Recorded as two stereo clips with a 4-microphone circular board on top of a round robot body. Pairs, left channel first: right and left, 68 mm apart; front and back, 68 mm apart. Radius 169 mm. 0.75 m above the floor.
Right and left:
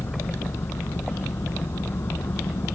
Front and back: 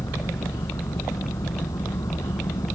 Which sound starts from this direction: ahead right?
An engine running, at 0.0 s.